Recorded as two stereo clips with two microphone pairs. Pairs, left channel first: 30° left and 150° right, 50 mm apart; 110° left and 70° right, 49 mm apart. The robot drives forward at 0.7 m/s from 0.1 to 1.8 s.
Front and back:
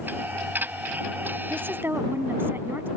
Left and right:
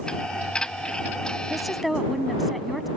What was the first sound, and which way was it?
A woman speaking, 155° right.